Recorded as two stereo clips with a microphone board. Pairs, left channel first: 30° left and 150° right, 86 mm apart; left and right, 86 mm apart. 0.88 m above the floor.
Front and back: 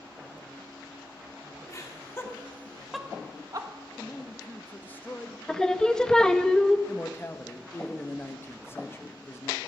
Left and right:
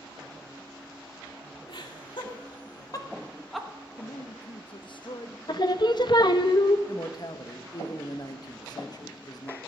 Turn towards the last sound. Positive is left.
turn(degrees=85)